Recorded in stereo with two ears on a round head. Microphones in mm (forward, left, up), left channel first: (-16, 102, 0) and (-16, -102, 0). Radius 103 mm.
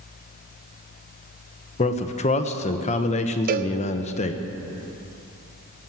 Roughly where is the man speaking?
Left.